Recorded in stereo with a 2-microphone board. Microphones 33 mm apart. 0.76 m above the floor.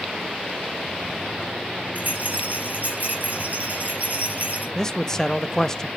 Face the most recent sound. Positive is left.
turn(degrees=20)  # may be behind; listen again after turning